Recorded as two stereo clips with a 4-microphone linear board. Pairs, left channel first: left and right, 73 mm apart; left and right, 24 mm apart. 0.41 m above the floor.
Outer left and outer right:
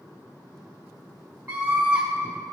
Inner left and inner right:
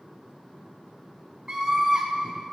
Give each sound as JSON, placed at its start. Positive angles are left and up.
{"t": 1.5, "sound": "a scream", "side_deg": -25, "distance_m": 1.4}